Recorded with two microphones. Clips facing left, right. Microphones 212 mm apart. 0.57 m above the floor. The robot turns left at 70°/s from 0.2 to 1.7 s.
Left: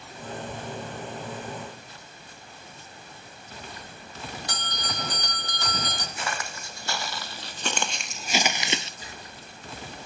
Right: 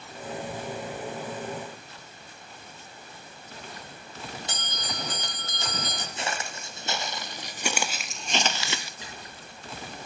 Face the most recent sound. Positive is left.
turn(degrees=-65)  # may be behind; listen again after turning